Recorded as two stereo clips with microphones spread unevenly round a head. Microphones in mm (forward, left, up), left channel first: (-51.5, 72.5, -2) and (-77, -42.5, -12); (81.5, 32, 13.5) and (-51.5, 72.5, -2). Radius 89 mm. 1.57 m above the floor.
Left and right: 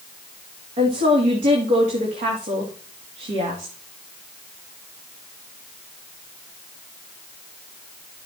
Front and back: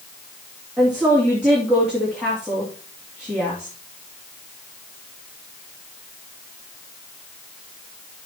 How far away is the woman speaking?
About 2.5 m.